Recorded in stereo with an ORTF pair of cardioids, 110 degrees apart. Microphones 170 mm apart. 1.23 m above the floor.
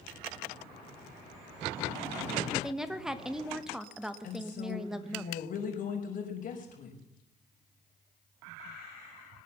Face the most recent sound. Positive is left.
turn(degrees=50)